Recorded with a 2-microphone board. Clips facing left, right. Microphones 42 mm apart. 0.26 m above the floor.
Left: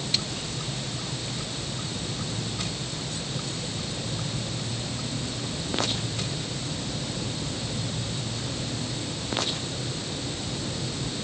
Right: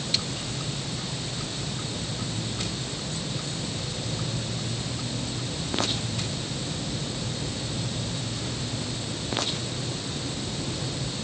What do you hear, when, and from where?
Only background noise.